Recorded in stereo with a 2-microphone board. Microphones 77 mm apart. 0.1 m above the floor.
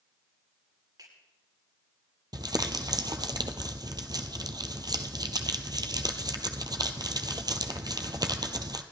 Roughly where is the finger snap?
Right.